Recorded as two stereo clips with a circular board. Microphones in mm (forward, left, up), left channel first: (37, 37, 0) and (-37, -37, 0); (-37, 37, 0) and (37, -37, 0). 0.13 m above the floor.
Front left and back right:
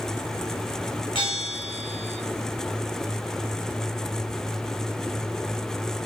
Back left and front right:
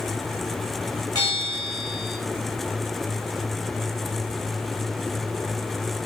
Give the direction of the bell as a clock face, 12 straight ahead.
9 o'clock.